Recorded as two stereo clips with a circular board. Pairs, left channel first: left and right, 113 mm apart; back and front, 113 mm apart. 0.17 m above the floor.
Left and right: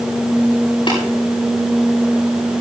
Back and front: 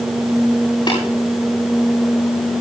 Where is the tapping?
135° left, 9 m.